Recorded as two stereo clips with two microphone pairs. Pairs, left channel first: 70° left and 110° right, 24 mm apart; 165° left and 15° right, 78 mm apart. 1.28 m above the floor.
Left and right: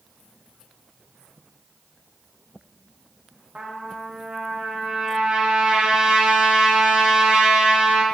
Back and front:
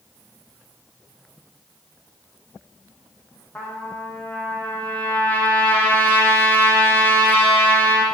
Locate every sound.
3.5 s a trumpet: 135° right, 0.8 m